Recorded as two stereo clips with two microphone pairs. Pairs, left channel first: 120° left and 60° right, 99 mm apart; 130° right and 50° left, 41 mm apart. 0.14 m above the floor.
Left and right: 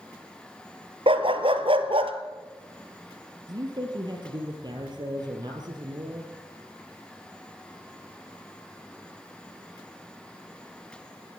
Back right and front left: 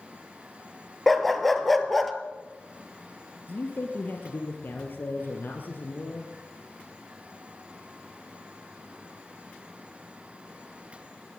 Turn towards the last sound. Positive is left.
turn(degrees=-100)